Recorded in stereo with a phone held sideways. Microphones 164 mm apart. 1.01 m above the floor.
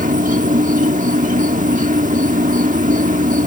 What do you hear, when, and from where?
0.0 s an insect: 55° right (ahead or behind)